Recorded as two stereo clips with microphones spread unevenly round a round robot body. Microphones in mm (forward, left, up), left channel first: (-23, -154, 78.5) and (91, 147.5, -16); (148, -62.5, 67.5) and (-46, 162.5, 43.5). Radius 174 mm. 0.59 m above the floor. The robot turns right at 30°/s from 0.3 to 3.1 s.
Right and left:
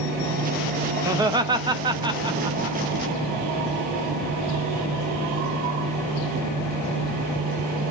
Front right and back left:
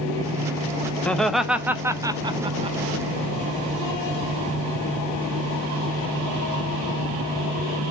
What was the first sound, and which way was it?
Laughter, 40° left.